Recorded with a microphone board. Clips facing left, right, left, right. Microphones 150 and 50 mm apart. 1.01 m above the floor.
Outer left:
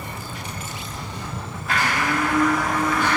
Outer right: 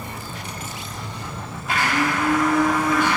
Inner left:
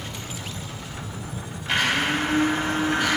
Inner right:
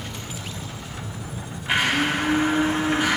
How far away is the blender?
About 1.8 m.